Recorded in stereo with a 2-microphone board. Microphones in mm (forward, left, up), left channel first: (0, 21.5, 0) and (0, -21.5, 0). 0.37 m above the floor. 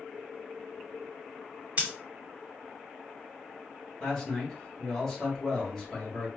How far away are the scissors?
About 1.8 m.